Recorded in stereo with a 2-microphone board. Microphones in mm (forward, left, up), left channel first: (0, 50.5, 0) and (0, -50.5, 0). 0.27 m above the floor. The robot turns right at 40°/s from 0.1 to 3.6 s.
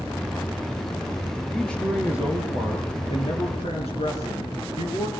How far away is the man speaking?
About 5 m.